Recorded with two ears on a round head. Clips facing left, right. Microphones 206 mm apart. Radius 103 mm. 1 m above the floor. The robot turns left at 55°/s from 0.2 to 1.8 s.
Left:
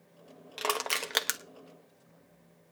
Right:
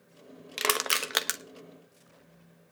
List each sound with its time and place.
0.6 s crushing: 35° right (ahead or behind), 1.0 m; by 1.4 s 5° left (ahead or behind), 1.0 m